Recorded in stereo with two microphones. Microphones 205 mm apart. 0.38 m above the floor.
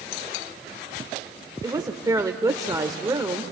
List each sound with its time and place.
1.6 s a woman speaking: 20° right (ahead or behind), 0.8 m